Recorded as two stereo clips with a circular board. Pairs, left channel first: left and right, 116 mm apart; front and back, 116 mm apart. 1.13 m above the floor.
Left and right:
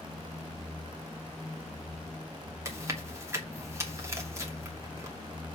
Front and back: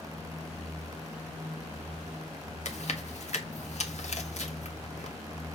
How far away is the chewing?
About 1.3 m.